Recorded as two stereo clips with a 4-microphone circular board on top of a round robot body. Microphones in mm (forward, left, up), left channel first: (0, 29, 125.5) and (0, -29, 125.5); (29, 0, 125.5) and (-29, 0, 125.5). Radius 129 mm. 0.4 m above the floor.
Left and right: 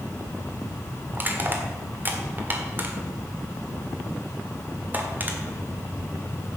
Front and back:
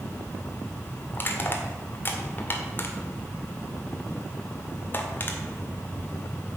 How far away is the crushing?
About 2 m.